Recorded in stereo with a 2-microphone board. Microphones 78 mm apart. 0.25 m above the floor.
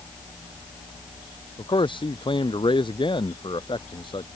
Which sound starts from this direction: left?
A man speaking, at 1.6 s.